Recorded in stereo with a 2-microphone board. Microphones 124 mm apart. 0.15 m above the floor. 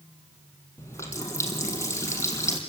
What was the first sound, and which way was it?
A running tap, 20° left (ahead or behind).